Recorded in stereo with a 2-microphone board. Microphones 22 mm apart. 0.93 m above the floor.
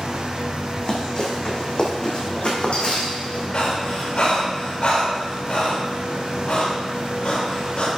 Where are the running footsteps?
30° left (ahead or behind), 2.5 m; by 3.5 s 60° left (ahead or behind), 2.5 m.